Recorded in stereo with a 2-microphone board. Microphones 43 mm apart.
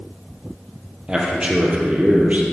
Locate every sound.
1.1 s a man speaking: 20° right (ahead or behind), 3 m; by 2.4 s 40° right (ahead or behind), 2.5 m